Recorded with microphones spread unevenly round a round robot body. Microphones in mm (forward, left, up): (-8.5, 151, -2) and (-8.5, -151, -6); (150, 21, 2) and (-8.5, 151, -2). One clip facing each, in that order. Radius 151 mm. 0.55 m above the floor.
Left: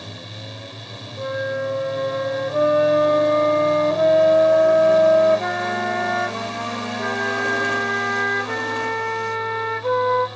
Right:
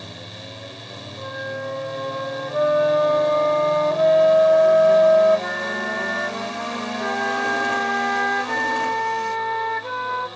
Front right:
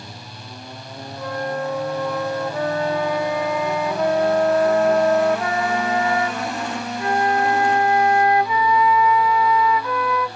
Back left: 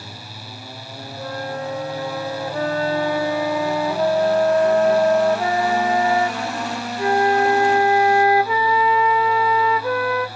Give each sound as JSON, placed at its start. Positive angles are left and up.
{"t": 1.2, "sound": "a flute", "azimuth_deg": 85, "distance_m": 1.2}